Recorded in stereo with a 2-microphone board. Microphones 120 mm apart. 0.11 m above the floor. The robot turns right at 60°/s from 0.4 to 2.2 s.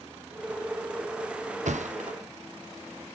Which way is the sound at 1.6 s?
80° right.